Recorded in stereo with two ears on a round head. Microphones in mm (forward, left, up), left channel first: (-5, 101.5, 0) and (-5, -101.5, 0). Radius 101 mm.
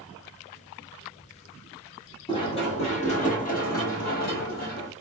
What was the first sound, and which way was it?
Running footsteps, 20° left (ahead or behind).